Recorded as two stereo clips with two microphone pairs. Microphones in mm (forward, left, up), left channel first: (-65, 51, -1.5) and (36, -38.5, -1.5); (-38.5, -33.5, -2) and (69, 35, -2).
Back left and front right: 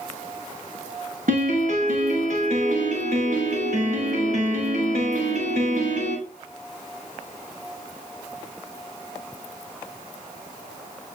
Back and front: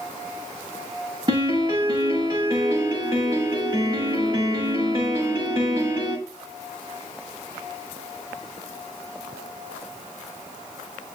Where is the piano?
20° right, 7 m.